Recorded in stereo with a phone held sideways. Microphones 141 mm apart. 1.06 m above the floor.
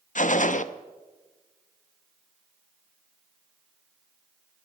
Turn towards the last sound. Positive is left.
turn(degrees=65)  # may be behind; listen again after turning